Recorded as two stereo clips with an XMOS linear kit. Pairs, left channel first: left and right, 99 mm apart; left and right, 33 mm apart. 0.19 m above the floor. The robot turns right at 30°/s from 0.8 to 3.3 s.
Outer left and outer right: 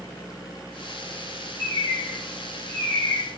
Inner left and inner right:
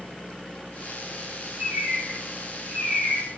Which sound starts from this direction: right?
A bird, at 1.6 s.